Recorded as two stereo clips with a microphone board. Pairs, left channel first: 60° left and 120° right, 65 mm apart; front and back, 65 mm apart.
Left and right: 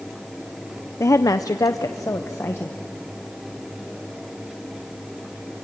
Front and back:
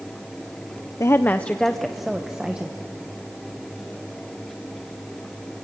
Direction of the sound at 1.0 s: 25° left.